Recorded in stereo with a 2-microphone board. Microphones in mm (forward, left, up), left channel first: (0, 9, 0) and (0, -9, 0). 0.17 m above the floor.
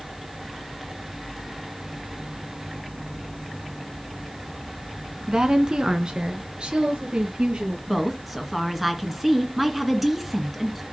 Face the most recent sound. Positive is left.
turn(degrees=-10)  # may be behind; listen again after turning